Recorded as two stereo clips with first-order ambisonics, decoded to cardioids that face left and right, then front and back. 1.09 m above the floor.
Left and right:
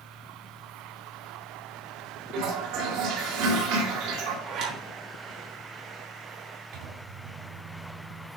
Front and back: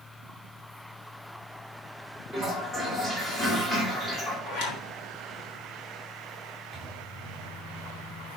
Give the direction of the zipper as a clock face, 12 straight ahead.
1 o'clock.